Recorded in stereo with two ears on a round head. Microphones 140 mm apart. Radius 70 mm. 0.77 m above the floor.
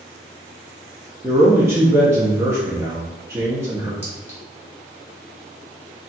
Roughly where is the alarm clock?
No alarm clock in this recording.